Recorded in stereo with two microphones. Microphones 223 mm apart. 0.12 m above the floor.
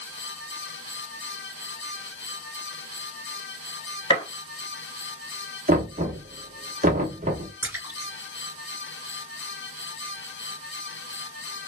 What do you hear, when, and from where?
4.1 s a gunshot: 25° left (ahead or behind), 0.8 m
5.7 s knocking: 35° right (ahead or behind), 0.9 m
7.6 s a splash: 10° right (ahead or behind), 1.6 m